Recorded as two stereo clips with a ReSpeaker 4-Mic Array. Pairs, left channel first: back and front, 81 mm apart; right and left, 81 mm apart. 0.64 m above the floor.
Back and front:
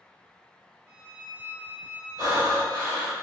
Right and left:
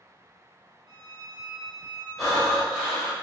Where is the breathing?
Straight ahead, 2.0 m.